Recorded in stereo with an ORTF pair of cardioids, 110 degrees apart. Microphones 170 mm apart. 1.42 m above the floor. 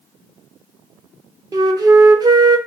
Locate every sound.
1.5 s a flute: 20° right, 0.7 m